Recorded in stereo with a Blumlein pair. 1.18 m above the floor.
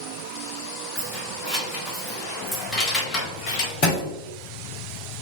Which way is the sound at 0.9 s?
Straight ahead.